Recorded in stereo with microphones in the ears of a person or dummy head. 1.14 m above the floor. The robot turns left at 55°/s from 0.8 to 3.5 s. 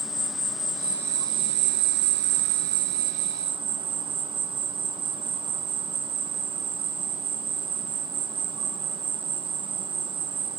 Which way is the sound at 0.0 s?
5° right.